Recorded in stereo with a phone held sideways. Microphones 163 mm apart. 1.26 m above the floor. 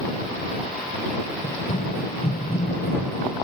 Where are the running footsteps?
65° left (ahead or behind); by 3.4 s 70° left (ahead or behind).